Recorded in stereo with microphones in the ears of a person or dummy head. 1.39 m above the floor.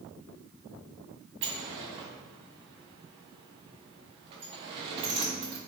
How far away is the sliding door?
About 0.5 m.